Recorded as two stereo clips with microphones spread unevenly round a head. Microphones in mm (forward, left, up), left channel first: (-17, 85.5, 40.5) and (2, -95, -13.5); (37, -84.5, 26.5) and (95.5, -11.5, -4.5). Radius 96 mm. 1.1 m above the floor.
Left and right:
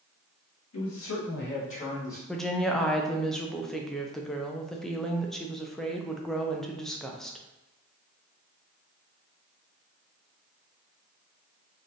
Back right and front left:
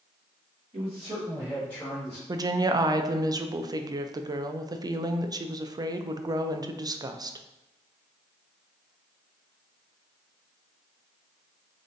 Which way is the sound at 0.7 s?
95° left.